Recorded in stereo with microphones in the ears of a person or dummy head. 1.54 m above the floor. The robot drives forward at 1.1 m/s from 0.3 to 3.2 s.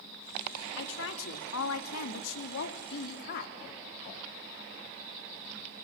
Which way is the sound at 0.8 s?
70° left (ahead or behind).